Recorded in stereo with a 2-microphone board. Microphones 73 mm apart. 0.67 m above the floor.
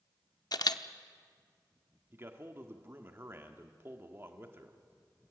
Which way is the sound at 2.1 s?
35° right (ahead or behind).